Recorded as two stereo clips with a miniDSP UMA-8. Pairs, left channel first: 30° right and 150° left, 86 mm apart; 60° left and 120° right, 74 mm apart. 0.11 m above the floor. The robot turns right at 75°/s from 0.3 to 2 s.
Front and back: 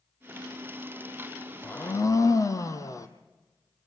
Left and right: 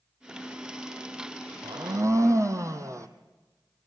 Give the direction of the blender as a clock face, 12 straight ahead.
3 o'clock.